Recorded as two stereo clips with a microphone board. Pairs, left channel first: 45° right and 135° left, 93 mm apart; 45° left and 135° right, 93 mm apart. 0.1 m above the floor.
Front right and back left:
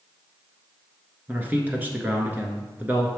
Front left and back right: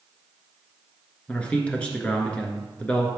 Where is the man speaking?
100° left, 1.3 m.